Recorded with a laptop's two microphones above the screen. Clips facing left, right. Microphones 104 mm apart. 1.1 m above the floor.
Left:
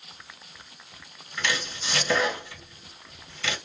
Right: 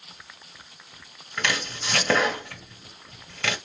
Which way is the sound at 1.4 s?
55° right (ahead or behind).